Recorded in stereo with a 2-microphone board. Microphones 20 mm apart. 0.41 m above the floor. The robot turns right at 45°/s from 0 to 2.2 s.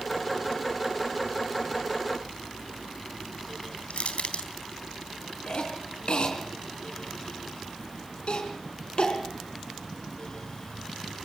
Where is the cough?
55° left (ahead or behind), 3.5 m.